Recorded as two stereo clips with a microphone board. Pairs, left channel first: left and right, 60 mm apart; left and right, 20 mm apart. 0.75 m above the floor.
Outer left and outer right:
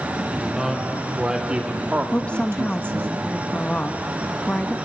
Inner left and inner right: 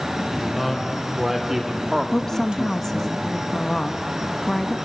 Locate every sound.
0.3 s a man speaking: 5° right (ahead or behind), 4 m; by 3.1 s 50° right (ahead or behind), 1.5 m
2.1 s a woman speaking: 20° left (ahead or behind), 0.9 m